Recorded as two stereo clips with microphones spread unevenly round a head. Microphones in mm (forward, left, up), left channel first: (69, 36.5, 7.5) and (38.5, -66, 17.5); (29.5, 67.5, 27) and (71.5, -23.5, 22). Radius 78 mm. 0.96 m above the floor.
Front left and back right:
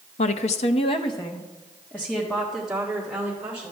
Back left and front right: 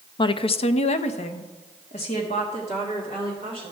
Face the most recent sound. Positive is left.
turn(degrees=170)